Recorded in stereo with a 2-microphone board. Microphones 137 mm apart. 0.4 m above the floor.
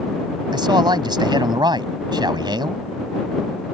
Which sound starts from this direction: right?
A man speaking, at 0.5 s.